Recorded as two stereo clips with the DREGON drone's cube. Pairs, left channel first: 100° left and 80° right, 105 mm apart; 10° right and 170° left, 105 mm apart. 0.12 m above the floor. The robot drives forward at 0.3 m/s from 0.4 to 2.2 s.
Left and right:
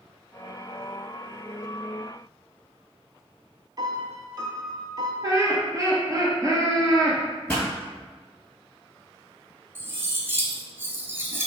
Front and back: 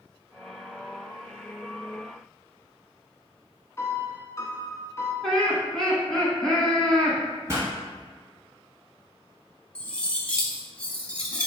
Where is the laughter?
90° right, 1.3 m.